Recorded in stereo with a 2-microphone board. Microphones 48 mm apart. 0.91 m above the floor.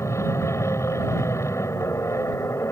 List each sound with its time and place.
0.0 s an aircraft: 75° left (ahead or behind)